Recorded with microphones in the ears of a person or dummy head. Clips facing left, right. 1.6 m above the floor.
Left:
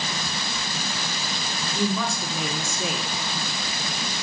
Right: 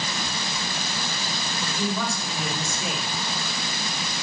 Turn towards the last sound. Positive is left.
turn(degrees=85)